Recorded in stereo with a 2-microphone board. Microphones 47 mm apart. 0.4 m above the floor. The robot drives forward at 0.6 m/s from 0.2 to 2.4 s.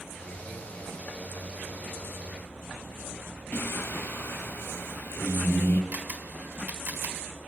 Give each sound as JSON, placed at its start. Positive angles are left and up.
{"t": 3.5, "sound": "singing", "side_deg": 55, "distance_m": 2.0}
{"t": 5.9, "sound": "a camera shutter", "side_deg": -40, "distance_m": 1.5}